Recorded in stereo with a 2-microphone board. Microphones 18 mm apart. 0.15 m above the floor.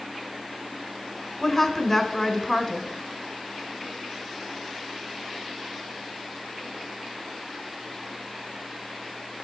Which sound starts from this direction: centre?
A woman speaking, at 1.4 s.